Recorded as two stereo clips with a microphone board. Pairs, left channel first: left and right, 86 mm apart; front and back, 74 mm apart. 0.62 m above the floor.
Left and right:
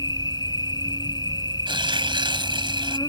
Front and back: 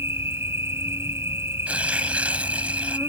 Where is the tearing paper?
110° right.